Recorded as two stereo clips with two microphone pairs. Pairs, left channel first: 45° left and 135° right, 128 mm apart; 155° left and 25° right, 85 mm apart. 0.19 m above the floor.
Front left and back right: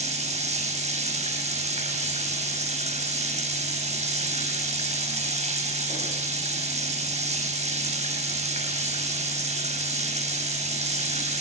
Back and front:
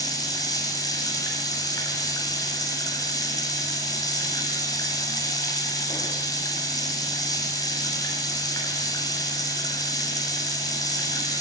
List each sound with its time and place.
0.0 s running water: 160° right, 7.5 m